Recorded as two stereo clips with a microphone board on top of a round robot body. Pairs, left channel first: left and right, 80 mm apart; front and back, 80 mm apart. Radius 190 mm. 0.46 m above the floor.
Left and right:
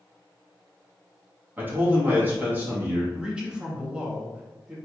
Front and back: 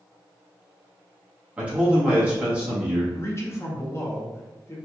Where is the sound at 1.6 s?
120° right, 1.2 m.